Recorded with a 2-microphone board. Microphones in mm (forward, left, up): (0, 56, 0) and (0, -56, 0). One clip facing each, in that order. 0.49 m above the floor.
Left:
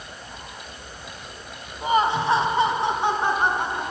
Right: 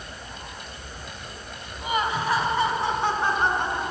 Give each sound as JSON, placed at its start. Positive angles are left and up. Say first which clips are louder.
{"t": 1.8, "sound": "laughter", "louder": "left 5 dB", "side_deg": 35, "distance_m": 2.5}